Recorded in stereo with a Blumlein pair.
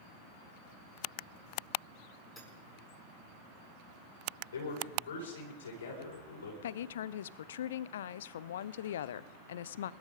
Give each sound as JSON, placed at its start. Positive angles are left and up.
{"t": 2.4, "sound": "hammering", "azimuth_deg": 0, "distance_m": 8.0}
{"t": 4.5, "sound": "a man speaking", "azimuth_deg": 65, "distance_m": 5.5}
{"t": 6.6, "sound": "a woman speaking", "azimuth_deg": 60, "distance_m": 0.5}